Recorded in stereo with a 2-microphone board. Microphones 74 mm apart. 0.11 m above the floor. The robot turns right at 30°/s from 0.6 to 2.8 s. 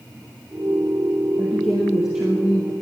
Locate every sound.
1.4 s a woman speaking: 165° left, 2.5 m; by 2.7 s 155° right, 2.5 m